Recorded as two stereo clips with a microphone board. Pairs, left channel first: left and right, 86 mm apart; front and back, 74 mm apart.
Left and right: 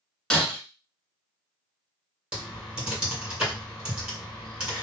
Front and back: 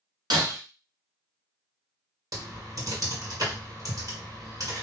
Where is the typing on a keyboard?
170° right, 2 m.